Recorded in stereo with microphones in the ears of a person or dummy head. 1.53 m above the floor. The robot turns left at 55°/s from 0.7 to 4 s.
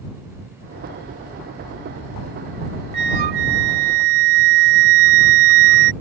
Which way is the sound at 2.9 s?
45° right.